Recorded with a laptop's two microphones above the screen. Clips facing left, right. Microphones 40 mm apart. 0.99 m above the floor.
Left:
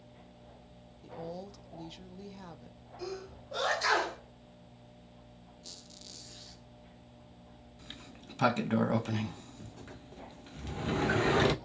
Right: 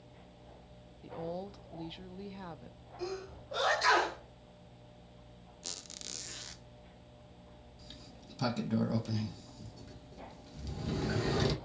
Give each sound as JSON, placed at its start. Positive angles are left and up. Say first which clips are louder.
{"t": 1.0, "sound": "a woman speaking", "louder": "right 2 dB", "side_deg": -20, "distance_m": 1.2}
{"t": 3.0, "sound": "a sneeze", "louder": "right 1 dB", "side_deg": -5, "distance_m": 4.5}
{"t": 5.6, "sound": "a squeak", "louder": "right 6 dB", "side_deg": -80, "distance_m": 0.8}
{"t": 7.8, "sound": "a sliding door", "louder": "left 5 dB", "side_deg": 50, "distance_m": 0.7}